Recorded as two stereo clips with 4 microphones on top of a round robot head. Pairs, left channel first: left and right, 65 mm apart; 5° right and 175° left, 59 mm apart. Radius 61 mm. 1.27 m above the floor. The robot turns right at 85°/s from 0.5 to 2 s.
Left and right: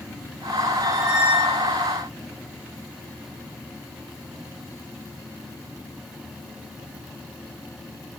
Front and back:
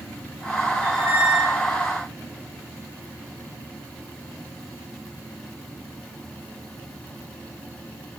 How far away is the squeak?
About 1.8 m.